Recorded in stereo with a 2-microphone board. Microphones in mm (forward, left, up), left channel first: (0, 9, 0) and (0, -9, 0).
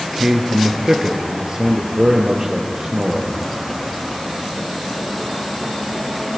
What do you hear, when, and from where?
0.1 s a man speaking: 30° right (ahead or behind), 2 m